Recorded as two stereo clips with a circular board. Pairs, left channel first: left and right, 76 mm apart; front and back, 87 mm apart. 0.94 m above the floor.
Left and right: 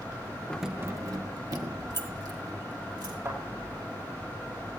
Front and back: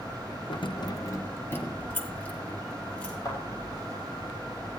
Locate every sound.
0.5 s keys jangling: 15° left, 0.6 m; by 3.1 s 75° right, 4 m
3.2 s a thud: 45° right, 8.5 m